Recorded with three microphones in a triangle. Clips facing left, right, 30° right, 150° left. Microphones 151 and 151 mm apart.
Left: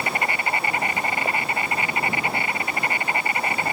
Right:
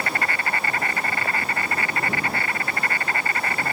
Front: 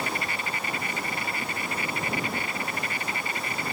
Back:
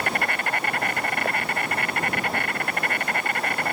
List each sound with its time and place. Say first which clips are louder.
0.0 s an insect: left 1 dB, back 5 dB; 160° left